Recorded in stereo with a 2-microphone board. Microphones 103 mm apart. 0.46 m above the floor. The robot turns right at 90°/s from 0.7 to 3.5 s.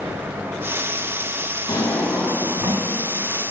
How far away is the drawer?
About 1.2 m.